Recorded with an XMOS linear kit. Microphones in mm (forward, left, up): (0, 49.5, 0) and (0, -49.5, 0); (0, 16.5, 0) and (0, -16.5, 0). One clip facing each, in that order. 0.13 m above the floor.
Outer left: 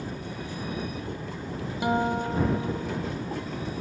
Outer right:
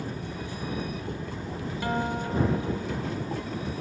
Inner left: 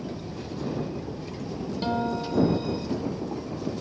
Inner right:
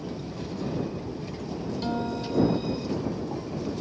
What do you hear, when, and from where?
1.8 s a guitar: 15° left (ahead or behind)